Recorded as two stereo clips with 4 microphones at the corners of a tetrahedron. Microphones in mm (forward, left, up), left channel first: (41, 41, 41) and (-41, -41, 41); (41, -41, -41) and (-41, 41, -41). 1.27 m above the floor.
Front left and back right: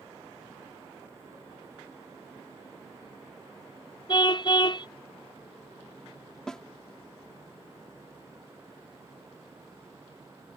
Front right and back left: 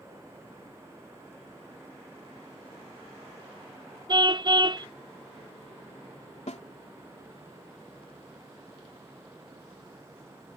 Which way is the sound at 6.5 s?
40° right.